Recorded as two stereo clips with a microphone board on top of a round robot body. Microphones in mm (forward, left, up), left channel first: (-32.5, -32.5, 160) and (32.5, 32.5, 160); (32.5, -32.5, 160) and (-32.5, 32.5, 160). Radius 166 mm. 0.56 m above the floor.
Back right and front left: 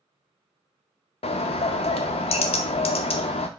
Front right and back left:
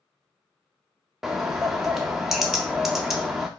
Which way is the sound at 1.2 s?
140° right.